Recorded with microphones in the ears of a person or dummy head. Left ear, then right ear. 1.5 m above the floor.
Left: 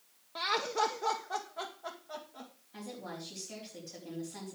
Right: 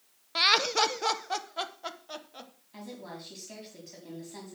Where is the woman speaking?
30° right (ahead or behind), 4 m.